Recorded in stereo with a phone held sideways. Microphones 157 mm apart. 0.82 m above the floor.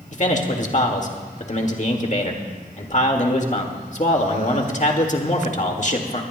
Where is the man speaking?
50° left (ahead or behind), 1.7 m.